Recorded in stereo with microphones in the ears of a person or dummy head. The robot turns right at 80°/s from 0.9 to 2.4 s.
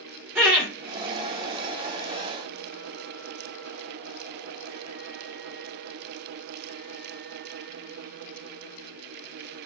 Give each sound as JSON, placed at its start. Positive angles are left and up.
{"t": 0.3, "sound": "laughter", "side_deg": -10, "distance_m": 0.8}